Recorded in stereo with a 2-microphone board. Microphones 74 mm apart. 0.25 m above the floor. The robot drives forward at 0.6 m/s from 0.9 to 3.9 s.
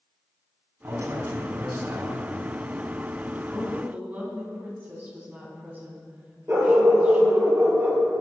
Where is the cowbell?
I don't hear a cowbell.